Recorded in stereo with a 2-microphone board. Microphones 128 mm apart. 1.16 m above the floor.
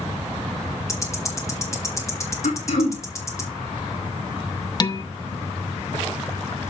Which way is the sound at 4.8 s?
35° left (ahead or behind).